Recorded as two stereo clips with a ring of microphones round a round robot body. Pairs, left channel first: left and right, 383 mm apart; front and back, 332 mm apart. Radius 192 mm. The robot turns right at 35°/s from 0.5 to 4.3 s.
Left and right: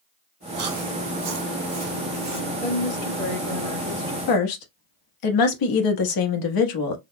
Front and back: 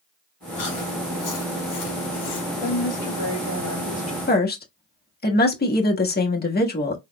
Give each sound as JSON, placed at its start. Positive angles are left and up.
{"t": 0.6, "sound": "chewing", "azimuth_deg": -65, "distance_m": 2.5}
{"t": 2.6, "sound": "a woman speaking", "azimuth_deg": 10, "distance_m": 1.9}
{"t": 4.3, "sound": "a woman speaking", "azimuth_deg": 60, "distance_m": 1.2}